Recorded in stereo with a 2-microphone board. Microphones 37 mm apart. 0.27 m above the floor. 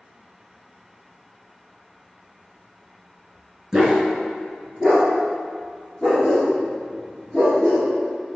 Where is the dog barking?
15° right (ahead or behind), 0.9 m; by 7.9 s centre (ahead or behind), 3 m.